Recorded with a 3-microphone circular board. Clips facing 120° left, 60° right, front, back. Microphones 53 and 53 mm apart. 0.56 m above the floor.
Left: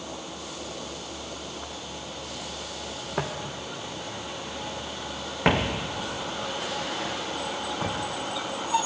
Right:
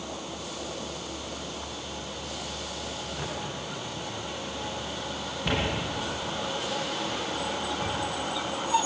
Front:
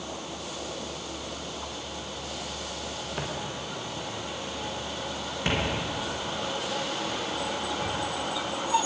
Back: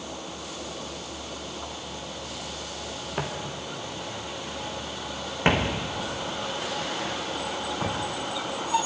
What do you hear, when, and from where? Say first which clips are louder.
3.2 s footsteps: left 6 dB, back 3 dB; 105° left, 3.5 m; by 8.0 s 155° left, 2.5 m